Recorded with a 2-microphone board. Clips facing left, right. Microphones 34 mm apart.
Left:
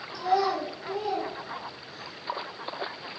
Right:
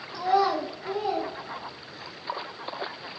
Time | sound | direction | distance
0.1 | a child speaking | 60° right (ahead or behind) | 0.9 m